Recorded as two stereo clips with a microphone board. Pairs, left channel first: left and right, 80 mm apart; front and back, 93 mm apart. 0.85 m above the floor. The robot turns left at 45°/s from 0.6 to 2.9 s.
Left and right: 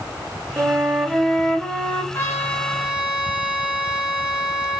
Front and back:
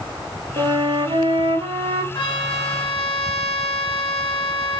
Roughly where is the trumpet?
Ahead left.